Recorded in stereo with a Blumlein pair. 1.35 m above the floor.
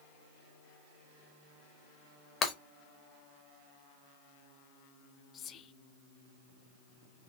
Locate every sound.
2.4 s breaking glass: 25° left, 1.3 m
5.3 s whispering: 25° left, 0.6 m